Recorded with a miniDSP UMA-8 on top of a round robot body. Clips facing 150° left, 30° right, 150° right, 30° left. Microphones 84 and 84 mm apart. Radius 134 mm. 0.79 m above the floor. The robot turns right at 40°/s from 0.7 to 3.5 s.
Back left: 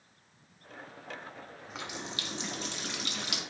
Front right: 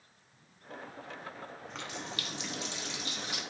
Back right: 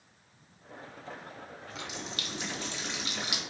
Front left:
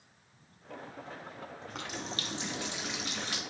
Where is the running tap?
65° left, 0.8 m; by 3.4 s 135° left, 0.8 m.